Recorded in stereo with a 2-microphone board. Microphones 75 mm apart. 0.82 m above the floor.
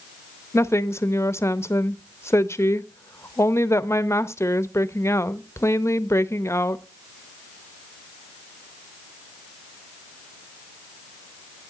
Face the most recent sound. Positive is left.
turn(degrees=35)  # may be behind; listen again after turning